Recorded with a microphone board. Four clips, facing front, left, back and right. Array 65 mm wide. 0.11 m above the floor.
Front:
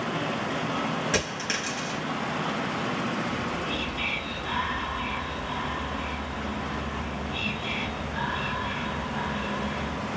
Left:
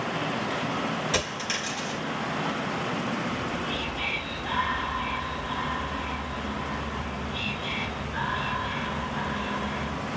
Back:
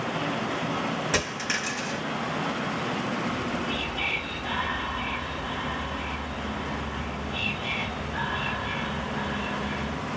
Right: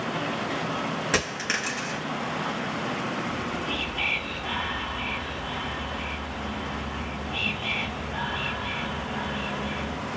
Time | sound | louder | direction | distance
1.1 | a dropped coin | right 2 dB, back 1 dB | 95° right | 4 m
3.3 | whispering | even, back 1 dB | 100° right | 3 m